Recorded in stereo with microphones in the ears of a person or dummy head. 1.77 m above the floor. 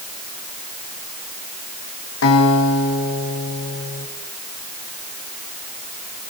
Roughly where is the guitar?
Left.